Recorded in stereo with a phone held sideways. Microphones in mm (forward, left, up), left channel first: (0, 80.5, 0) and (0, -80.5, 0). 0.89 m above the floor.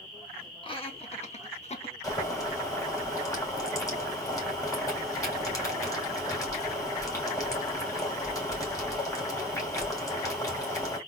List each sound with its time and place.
0.6 s laughter: 30° left (ahead or behind), 1.6 m; by 1.9 s 35° left (ahead or behind), 1.2 m
2.0 s boiling: 20° left (ahead or behind), 3 m